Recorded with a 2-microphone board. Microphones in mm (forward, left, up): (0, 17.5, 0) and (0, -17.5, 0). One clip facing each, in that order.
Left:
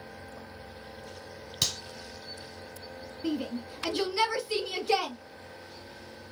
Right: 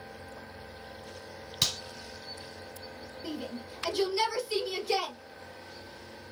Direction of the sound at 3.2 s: 35° left (ahead or behind).